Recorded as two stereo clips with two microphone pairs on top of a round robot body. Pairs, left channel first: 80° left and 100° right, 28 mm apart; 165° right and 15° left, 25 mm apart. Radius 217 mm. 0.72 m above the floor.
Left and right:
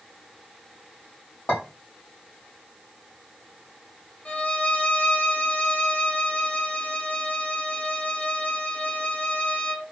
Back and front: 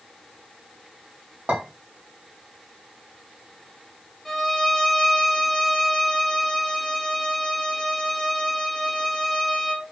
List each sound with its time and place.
1.5 s a clink: 35° left, 1.2 m
4.2 s a violin: 120° left, 0.8 m